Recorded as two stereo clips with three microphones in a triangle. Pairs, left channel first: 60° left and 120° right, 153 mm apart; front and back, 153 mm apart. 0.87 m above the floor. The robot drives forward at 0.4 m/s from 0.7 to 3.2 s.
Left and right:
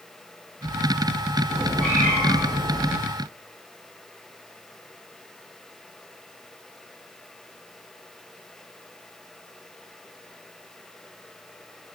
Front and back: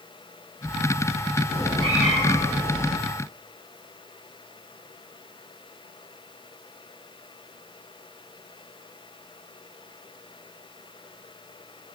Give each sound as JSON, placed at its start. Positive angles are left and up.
{"t": 1.5, "sound": "a cat meowing", "azimuth_deg": -85, "distance_m": 3.5}